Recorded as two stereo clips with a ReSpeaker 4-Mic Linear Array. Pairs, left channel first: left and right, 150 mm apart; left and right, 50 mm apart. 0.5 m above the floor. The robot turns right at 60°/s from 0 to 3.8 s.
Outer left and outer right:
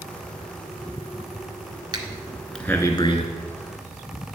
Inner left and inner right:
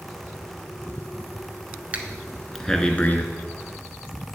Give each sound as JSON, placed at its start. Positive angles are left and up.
{"t": 1.9, "sound": "breathing", "side_deg": -30, "distance_m": 0.9}